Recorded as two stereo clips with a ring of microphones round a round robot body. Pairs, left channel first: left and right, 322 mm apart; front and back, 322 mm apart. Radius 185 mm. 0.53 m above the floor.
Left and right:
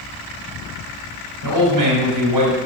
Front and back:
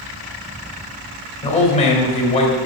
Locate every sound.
1.4 s a man speaking: 70° right, 3 m